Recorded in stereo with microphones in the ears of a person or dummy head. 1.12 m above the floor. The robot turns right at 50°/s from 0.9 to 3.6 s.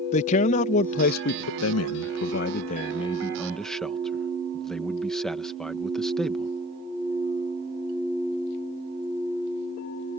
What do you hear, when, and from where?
0.1 s a man speaking: 40° left; by 6.5 s 175° left